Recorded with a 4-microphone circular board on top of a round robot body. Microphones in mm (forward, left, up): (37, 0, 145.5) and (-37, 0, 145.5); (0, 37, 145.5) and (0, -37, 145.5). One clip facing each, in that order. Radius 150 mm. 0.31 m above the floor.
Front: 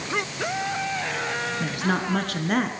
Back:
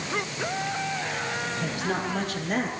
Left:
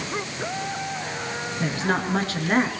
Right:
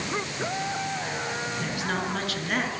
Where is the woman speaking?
35° left, 7 m; by 2.7 s 30° left, 6 m.